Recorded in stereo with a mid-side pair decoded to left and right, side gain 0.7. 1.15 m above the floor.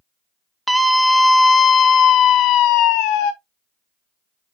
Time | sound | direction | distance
0.7 | a scream | 5° right | 1.0 m